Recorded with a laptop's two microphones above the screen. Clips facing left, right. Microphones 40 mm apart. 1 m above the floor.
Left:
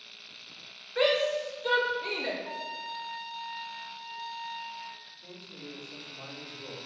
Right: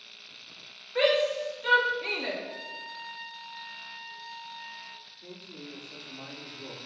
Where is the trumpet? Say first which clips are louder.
Left 2 dB; 75° left (ahead or behind), 0.5 m.